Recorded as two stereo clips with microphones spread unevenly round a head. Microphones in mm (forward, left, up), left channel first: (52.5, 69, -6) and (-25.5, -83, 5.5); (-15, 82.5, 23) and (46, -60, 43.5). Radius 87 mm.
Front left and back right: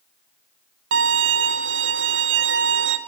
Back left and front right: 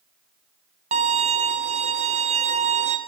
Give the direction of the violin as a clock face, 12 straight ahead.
4 o'clock.